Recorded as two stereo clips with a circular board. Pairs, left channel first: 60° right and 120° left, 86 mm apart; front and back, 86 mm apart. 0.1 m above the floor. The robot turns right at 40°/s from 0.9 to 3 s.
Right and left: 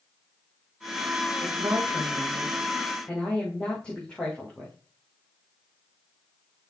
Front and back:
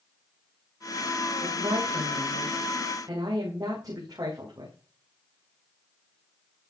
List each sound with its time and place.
1.4 s a woman speaking: 160° left, 5.5 m; by 4.8 s 135° right, 5.5 m